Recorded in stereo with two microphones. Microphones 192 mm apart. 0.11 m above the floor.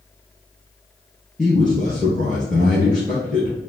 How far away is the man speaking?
About 1.7 m.